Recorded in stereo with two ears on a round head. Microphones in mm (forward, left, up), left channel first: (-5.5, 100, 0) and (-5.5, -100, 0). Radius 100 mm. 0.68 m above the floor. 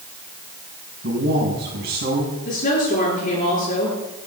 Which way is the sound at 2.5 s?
45° left (ahead or behind).